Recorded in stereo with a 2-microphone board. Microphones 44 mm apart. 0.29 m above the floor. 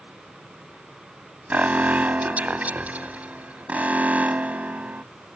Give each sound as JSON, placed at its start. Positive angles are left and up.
{"t": 1.5, "sound": "an alarm", "side_deg": -40}